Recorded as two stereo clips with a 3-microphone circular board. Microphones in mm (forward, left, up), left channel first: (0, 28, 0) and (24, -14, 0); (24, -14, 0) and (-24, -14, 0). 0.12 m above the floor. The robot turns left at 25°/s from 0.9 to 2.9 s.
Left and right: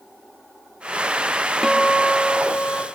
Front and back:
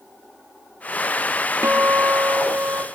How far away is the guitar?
About 1.2 m.